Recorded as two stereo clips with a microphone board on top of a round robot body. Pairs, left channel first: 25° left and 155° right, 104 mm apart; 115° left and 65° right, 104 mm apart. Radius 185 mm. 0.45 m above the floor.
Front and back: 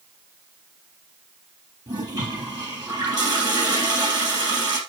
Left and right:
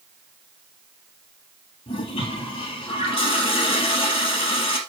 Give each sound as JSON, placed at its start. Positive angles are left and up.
{"t": 1.9, "sound": "a toilet flushing", "azimuth_deg": 155, "distance_m": 3.5}